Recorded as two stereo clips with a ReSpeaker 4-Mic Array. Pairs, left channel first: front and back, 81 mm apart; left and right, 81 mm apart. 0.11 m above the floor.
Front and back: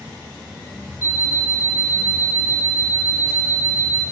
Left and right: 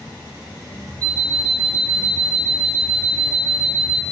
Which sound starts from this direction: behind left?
An alarm clock, at 1.0 s.